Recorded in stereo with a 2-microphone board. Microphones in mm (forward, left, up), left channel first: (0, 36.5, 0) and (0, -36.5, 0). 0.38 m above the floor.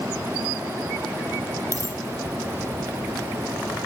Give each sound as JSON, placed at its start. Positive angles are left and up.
{"t": 1.7, "sound": "a dropped coin", "side_deg": -40, "distance_m": 3.0}